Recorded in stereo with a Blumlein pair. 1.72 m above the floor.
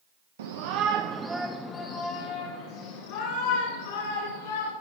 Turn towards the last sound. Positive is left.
turn(degrees=60)